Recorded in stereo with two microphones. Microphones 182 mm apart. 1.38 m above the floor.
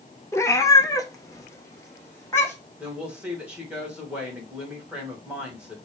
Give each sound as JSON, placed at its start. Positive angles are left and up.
{"t": 0.3, "sound": "a cat meowing", "side_deg": 15, "distance_m": 0.7}
{"t": 2.8, "sound": "a woman speaking", "side_deg": -5, "distance_m": 1.8}